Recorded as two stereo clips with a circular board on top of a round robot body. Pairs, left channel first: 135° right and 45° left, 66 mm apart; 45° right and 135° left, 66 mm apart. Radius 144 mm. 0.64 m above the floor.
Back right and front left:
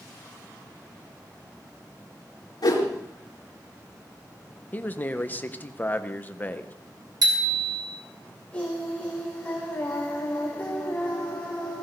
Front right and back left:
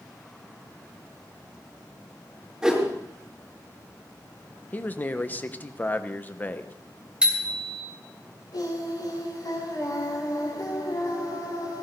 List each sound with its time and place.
2.6 s a whoosh: 140° right, 5 m
4.7 s a man speaking: 90° right, 1.3 m
7.2 s a bicycle bell: 60° left, 3 m
8.5 s singing: 65° right, 8.5 m